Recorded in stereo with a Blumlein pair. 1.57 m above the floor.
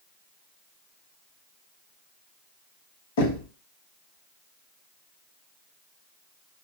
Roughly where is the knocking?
Ahead left.